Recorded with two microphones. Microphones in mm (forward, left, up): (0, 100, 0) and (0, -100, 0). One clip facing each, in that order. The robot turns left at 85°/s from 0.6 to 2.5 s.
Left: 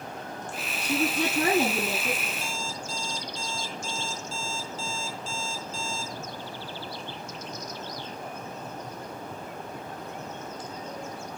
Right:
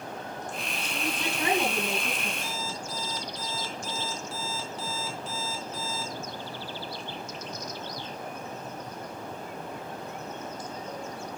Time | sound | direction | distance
0.8 | a woman speaking | 110° left | 8 m
2.4 | an alarm clock | 65° right (ahead or behind) | 3.5 m